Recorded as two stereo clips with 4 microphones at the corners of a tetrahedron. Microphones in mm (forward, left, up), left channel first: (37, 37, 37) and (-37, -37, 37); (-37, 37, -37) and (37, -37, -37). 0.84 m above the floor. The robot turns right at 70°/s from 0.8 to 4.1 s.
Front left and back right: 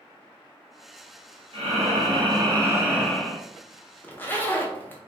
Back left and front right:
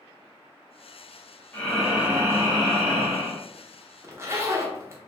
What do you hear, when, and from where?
1.5 s breathing: 155° right, 0.9 m; by 3.4 s 20° right, 0.9 m
4.0 s a zipper: 15° right, 0.6 m